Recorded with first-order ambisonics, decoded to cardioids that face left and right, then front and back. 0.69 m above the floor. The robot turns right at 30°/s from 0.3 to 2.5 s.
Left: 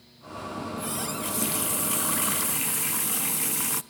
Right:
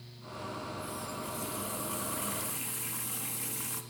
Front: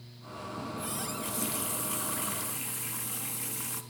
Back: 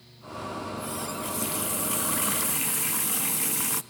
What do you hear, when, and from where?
0.6 s a running tap: 75° left, 0.6 m; by 3.8 s 130° left, 0.6 m